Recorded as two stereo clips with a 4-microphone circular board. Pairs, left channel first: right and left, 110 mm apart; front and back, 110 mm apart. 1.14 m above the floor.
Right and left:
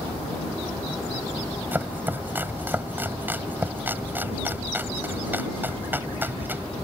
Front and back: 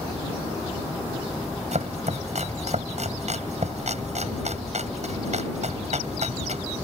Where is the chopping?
165° left.